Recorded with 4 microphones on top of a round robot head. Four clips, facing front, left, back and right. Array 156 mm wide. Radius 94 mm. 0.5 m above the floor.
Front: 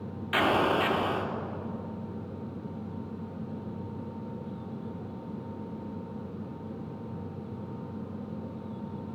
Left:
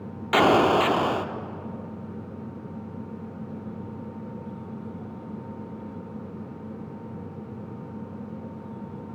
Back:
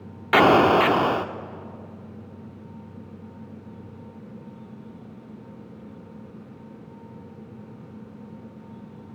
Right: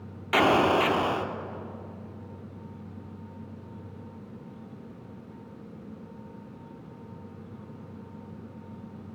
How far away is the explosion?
About 0.7 m.